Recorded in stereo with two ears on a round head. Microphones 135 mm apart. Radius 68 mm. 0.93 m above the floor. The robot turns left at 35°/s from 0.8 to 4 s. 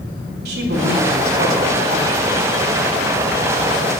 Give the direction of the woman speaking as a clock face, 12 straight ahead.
3 o'clock.